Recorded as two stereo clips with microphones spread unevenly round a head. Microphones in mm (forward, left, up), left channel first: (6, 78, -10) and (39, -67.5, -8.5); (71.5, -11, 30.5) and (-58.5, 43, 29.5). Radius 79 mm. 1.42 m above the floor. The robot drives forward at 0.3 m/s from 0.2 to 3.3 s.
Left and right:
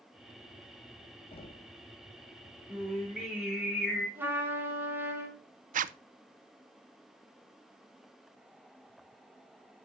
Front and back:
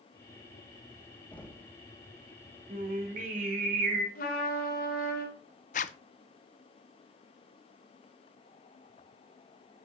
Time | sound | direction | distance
1.3 | knocking | 55° left | 1.4 m
2.7 | singing | 160° right | 3 m
4.2 | a trumpet | straight ahead | 3.5 m
5.7 | a zipper | 60° right | 0.5 m